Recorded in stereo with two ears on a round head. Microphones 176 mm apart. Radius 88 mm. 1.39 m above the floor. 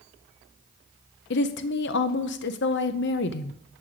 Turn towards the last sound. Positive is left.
turn(degrees=60)  # may be behind; listen again after turning